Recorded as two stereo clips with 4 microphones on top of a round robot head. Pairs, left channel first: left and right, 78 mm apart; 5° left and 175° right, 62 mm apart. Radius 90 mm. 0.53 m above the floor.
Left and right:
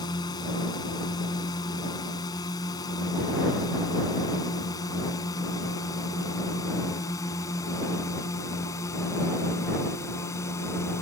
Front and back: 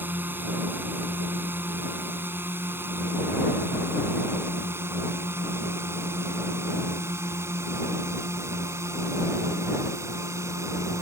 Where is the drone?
130° left; by 11.0 s 145° left.